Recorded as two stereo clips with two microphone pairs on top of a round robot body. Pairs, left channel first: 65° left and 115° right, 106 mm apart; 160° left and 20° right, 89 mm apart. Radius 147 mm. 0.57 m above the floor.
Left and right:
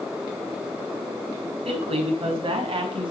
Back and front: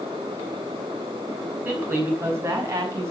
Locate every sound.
1.6 s a woman speaking: 85° right, 6 m; by 3.1 s 75° right, 6 m